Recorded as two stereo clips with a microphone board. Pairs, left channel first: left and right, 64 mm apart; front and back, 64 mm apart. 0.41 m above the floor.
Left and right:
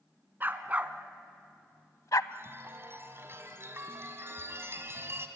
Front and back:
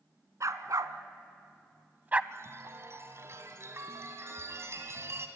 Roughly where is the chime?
Behind right.